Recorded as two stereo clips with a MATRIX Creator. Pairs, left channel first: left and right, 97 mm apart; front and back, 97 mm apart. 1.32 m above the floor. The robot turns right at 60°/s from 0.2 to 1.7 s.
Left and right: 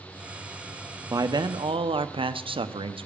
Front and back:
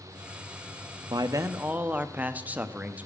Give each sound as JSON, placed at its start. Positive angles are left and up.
{"t": 1.1, "sound": "a man speaking", "azimuth_deg": -145, "distance_m": 0.6}